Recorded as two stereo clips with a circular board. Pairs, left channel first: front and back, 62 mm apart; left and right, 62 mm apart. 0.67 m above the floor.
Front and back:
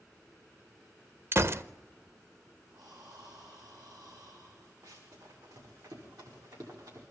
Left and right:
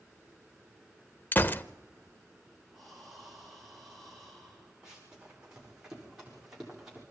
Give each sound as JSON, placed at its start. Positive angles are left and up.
{"t": 1.3, "sound": "a gunshot", "azimuth_deg": 145, "distance_m": 0.5}
{"t": 2.7, "sound": "breathing", "azimuth_deg": 175, "distance_m": 5.5}
{"t": 4.8, "sound": "running footsteps", "azimuth_deg": -170, "distance_m": 9.0}